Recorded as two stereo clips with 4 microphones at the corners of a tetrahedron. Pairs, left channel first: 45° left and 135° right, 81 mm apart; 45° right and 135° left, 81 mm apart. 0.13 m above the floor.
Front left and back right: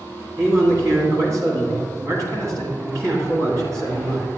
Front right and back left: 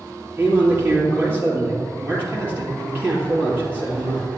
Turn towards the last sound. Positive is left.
turn(degrees=-170)